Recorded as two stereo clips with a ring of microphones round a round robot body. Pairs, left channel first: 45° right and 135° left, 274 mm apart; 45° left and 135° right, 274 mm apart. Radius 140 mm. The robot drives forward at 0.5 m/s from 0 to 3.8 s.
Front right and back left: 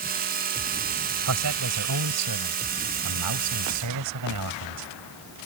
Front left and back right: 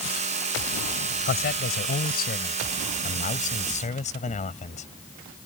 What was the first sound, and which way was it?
A man speaking, 100° left.